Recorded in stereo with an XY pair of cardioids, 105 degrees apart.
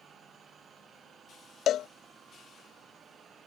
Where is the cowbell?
65° left.